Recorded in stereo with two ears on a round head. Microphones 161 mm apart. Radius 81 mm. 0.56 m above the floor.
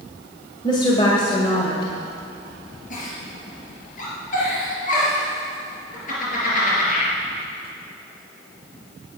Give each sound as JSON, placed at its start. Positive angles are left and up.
{"t": 0.6, "sound": "a woman speaking", "side_deg": 25, "distance_m": 2.0}
{"t": 2.9, "sound": "a giggle", "side_deg": 50, "distance_m": 4.5}